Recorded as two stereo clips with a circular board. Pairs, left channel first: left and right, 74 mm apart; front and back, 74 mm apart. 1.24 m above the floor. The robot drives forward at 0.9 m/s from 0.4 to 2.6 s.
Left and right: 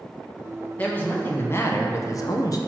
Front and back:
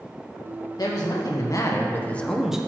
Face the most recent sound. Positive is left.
turn(degrees=105)